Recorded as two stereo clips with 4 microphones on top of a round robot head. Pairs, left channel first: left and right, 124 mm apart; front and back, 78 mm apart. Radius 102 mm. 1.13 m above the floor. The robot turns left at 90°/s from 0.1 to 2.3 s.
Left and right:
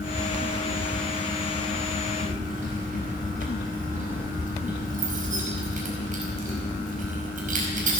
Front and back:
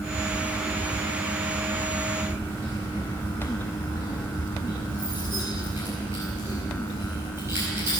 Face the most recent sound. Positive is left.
turn(degrees=-110)